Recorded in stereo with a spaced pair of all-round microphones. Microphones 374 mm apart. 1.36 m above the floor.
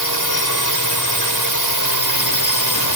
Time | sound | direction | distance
0.0 | a drone | 55° left (ahead or behind) | ?